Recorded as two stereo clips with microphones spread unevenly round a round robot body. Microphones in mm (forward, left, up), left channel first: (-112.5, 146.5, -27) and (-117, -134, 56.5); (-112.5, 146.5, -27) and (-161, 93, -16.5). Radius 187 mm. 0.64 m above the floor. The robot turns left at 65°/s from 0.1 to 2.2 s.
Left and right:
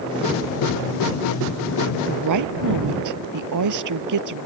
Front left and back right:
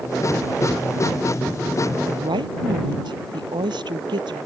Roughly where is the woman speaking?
Right.